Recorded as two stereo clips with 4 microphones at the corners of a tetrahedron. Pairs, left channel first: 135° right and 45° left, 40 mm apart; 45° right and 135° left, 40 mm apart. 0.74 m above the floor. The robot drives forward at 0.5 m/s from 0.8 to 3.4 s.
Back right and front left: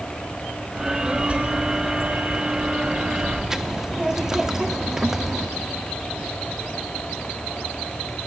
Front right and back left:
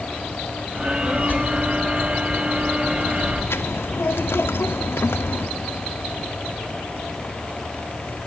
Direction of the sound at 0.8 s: 10° right.